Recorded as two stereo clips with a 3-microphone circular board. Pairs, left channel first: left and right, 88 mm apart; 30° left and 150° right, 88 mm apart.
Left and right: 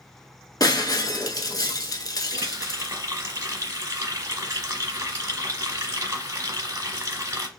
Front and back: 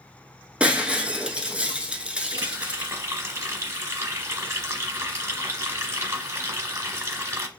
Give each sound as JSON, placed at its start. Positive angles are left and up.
{"t": 0.6, "sound": "breaking glass", "azimuth_deg": 135, "distance_m": 0.6}
{"t": 2.3, "sound": "a running tap", "azimuth_deg": -115, "distance_m": 1.0}